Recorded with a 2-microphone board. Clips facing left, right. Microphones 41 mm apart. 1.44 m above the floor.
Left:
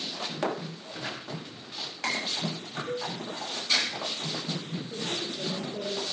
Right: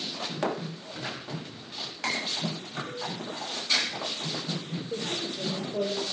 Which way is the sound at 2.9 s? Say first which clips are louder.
Left 6 dB; 55° left (ahead or behind).